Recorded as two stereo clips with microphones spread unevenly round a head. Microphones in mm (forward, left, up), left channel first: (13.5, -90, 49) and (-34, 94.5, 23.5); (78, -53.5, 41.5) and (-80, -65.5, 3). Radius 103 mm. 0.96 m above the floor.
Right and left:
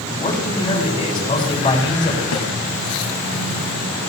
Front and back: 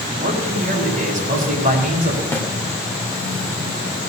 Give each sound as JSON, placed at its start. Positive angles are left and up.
{"t": 0.2, "sound": "a man speaking", "azimuth_deg": -145, "distance_m": 7.0}
{"t": 2.3, "sound": "a snare drum", "azimuth_deg": -75, "distance_m": 3.0}